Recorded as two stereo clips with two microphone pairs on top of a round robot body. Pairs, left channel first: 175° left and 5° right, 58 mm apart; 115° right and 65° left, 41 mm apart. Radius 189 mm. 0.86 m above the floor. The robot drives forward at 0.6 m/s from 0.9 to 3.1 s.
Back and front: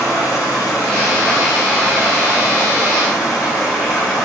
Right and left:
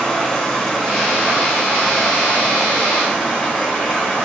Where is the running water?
165° left, 3.5 m; by 4.3 s 170° left, 5 m.